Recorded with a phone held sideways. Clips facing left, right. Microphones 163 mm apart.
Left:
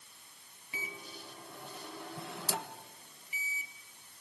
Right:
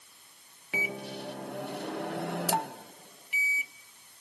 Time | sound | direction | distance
0.7 | a microwave | 75° right (ahead or behind) | 0.6 m